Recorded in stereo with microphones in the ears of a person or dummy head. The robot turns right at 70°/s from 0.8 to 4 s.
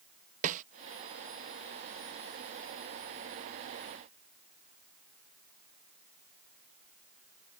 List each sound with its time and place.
0.4 s a snare drum: 45° right (ahead or behind)